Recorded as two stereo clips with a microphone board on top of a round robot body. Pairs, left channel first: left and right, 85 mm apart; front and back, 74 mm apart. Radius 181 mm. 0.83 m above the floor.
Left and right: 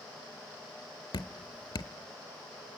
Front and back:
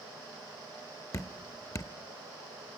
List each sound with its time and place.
1.1 s dripping: 45° left, 0.8 m